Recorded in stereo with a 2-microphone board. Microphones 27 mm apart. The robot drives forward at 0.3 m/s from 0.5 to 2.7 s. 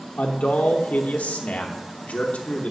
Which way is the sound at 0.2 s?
70° left (ahead or behind).